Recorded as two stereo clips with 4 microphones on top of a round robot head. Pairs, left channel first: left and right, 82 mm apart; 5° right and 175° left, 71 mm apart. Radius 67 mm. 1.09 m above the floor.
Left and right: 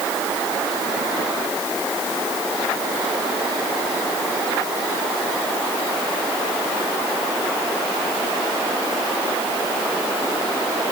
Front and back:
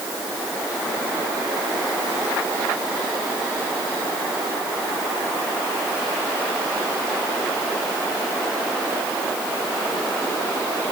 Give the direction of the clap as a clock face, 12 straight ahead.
I don't hear a clap.